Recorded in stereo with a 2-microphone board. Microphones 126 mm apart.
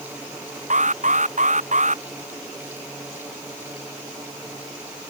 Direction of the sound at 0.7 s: 65° right (ahead or behind).